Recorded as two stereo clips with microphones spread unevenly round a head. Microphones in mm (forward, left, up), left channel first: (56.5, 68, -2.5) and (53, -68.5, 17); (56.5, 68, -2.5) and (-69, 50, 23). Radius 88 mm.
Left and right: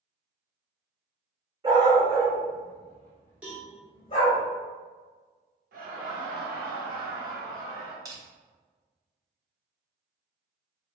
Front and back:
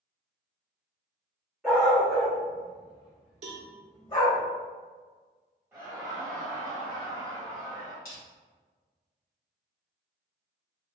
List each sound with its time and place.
1.6 s a dog barking: 95° right, 1.3 m; by 4.4 s 60° left, 1.3 m
3.4 s a cowbell: 170° right, 0.6 m
5.7 s laughter: 95° right, 1.2 m
8.1 s crushing: 35° right, 0.9 m